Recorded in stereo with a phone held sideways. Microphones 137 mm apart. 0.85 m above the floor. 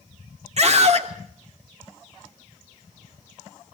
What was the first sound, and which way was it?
A scream, 50° right (ahead or behind).